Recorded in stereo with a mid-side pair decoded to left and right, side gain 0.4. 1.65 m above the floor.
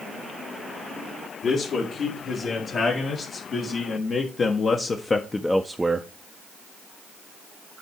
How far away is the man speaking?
About 3.5 m.